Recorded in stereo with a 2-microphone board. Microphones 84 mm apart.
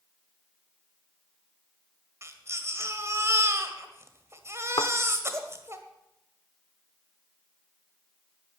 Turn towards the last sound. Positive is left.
turn(degrees=60)  # may be behind; listen again after turning